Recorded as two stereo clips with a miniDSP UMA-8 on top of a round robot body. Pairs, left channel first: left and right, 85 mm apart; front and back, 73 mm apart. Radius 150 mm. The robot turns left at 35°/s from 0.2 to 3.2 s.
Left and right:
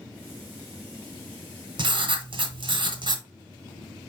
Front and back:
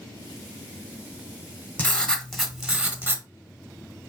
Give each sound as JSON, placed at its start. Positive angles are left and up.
{"t": 1.8, "sound": "writing", "azimuth_deg": -70, "distance_m": 1.1}